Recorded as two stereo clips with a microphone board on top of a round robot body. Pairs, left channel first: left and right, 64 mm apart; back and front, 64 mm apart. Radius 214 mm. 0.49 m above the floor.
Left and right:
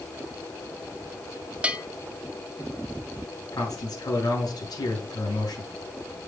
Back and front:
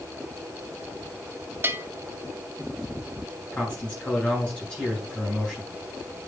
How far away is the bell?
About 1.5 m.